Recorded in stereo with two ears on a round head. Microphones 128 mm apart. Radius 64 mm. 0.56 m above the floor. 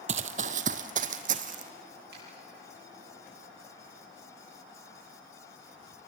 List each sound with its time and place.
0.1 s running footsteps: 50° right (ahead or behind), 0.8 m; by 1.7 s 60° right (ahead or behind), 1.5 m
2.1 s a finger snap: 85° right, 9.5 m